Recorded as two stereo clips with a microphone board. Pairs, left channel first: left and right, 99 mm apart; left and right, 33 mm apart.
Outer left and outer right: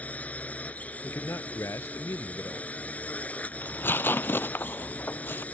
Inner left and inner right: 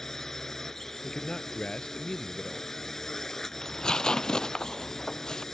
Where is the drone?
15° left (ahead or behind).